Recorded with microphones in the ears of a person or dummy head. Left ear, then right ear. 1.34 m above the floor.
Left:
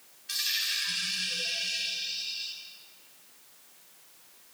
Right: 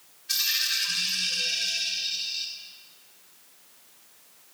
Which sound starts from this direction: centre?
A dropped coin, at 0.3 s.